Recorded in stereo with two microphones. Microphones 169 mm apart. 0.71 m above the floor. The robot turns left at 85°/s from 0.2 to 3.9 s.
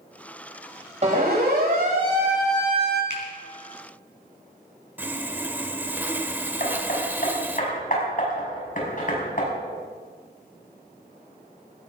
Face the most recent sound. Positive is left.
turn(degrees=55)  # may be behind; listen again after turning